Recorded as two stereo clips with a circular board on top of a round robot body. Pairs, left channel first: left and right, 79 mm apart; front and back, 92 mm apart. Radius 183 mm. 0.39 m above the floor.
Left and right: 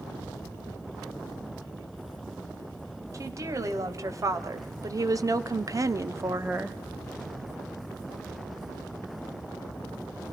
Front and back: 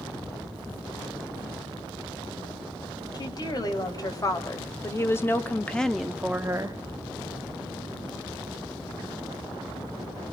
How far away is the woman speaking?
About 4 m.